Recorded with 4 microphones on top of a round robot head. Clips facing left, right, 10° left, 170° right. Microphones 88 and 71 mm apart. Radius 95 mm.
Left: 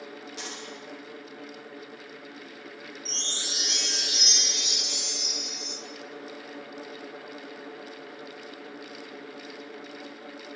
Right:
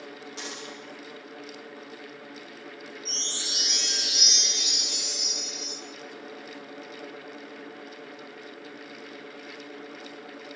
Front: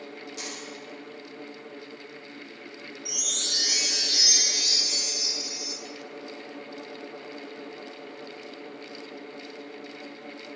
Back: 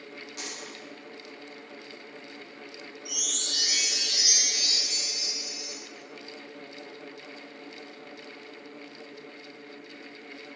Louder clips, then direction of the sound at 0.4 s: Right 2 dB, front 1 dB; 140° right.